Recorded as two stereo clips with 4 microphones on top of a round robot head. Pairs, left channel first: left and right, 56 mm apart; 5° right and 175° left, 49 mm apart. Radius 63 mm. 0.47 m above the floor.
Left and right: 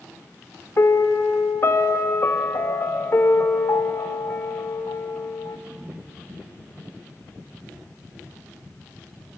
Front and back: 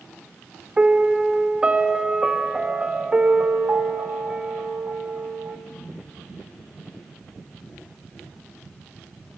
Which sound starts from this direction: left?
A piano, at 0.8 s.